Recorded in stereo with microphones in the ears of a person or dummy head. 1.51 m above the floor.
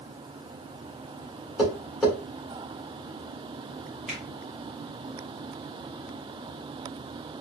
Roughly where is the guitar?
No guitar in this recording.